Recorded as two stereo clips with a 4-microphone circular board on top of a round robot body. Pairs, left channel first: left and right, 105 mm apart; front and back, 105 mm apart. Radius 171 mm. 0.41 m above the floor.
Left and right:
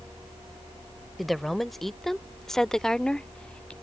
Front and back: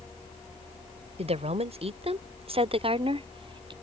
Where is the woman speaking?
Straight behind; by 3.7 s 170° left.